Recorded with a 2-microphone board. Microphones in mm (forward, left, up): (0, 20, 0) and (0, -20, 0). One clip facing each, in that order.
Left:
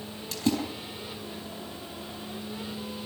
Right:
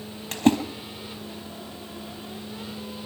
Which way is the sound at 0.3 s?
45° right (ahead or behind).